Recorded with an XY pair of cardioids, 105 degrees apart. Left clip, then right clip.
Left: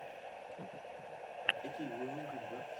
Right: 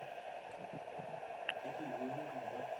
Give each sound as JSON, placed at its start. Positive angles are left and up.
{"t": 1.6, "sound": "a man speaking", "azimuth_deg": 55, "distance_m": 2.5}